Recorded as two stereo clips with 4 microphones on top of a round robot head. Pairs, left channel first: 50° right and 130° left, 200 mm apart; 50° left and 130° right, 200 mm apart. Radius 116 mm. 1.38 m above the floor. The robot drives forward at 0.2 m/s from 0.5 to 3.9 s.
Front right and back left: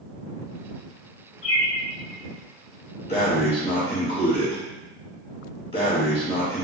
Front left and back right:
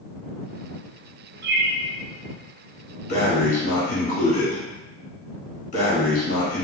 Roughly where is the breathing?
Ahead.